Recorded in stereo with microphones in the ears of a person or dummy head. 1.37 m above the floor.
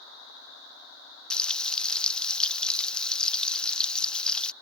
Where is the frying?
10° left (ahead or behind).